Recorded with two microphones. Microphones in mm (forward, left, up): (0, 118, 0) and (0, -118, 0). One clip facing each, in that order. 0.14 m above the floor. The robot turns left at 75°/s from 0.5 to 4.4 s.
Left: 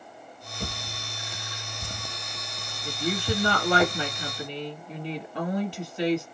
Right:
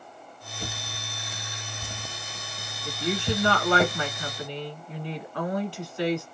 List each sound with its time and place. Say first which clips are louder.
0.6 s a drawer: left 2 dB; 60° left (ahead or behind), 1.6 m; by 3.9 s 40° right (ahead or behind), 1.6 m
2.9 s a woman speaking: even; centre (ahead or behind), 1.1 m; by 6.3 s 20° left (ahead or behind), 1.1 m